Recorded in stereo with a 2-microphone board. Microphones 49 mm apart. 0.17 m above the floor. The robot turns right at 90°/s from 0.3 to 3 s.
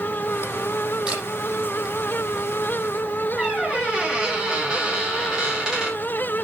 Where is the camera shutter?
15° right (ahead or behind), 6.5 m; by 1.2 s 30° right (ahead or behind), 6.5 m.